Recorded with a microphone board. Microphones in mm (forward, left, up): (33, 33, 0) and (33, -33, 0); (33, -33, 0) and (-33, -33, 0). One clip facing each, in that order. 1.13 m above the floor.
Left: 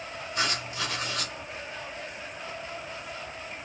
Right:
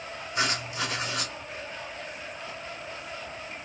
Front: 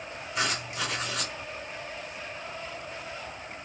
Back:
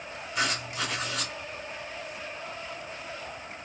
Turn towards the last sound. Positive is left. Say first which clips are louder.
# right 2 dB, back 1 dB
turn(degrees=-80)